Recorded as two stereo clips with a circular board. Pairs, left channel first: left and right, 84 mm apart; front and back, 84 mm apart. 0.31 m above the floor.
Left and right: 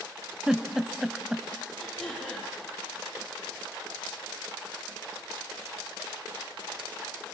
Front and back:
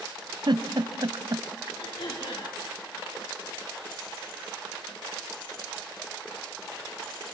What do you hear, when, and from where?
0.5 s a giggle: 170° right, 1.3 m
1.8 s throat clearing: 5° left, 8.5 m